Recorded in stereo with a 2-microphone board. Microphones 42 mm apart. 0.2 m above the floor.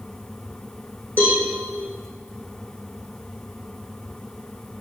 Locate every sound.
1.2 s a cowbell: 50° left (ahead or behind), 6 m